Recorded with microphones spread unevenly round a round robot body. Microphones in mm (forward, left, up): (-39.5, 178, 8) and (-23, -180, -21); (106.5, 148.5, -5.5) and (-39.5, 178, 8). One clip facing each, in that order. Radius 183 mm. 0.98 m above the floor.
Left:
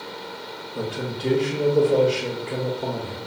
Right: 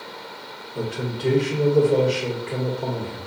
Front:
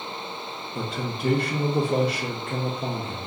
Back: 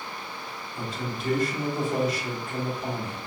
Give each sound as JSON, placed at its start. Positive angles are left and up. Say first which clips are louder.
{"t": 0.8, "sound": "a man speaking", "louder": "right 1 dB, front 3 dB", "azimuth_deg": -5, "distance_m": 0.8}